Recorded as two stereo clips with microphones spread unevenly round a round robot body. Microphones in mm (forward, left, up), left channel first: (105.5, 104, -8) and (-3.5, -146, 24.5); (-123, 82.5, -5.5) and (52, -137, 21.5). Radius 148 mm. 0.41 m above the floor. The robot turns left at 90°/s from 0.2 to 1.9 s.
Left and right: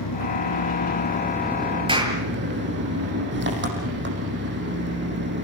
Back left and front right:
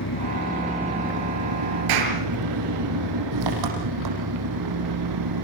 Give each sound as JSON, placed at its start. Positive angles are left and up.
{"t": 0.0, "sound": "an engine running", "azimuth_deg": 90, "distance_m": 7.5}
{"t": 1.9, "sound": "a clap", "azimuth_deg": -40, "distance_m": 7.0}